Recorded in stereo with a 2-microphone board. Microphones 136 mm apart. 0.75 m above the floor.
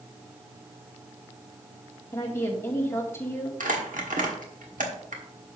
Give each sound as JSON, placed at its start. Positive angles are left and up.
{"t": 2.1, "sound": "a woman speaking", "side_deg": 20, "distance_m": 2.0}
{"t": 3.6, "sound": "crumpling", "side_deg": -75, "distance_m": 1.4}